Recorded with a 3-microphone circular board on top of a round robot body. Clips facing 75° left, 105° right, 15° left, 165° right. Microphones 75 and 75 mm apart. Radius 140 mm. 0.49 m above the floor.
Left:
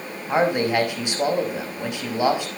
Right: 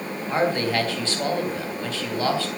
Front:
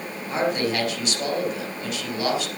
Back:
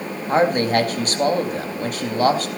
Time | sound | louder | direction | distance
0.3 | a man speaking | left 3 dB, back 6 dB | 150° left | 5 m